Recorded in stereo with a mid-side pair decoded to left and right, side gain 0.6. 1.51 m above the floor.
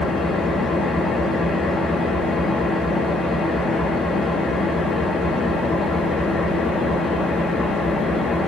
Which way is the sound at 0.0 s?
25° left.